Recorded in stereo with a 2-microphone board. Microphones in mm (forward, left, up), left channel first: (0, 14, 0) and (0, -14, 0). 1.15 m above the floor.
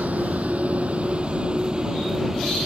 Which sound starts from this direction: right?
A vehicle, at 0.0 s.